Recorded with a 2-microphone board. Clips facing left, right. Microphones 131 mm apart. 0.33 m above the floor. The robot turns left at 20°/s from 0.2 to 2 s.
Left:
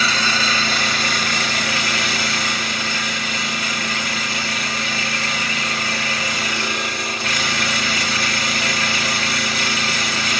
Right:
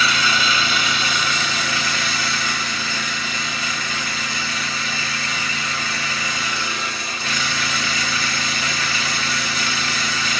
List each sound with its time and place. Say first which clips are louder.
0.0 s an engine running: even; 145° left, 1.6 m; by 10.4 s 110° left, 1.6 m